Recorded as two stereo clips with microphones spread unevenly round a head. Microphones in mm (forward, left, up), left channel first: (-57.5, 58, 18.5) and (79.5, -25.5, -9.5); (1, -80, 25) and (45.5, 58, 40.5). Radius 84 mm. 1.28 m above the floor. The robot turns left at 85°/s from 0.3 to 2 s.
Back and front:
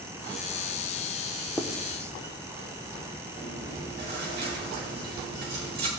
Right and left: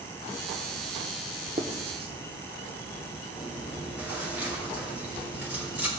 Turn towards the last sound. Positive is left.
turn(degrees=-5)